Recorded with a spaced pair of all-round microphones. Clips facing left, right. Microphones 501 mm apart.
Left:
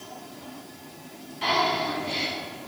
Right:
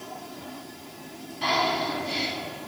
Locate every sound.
1.4 s breathing: 60° right (ahead or behind), 3 m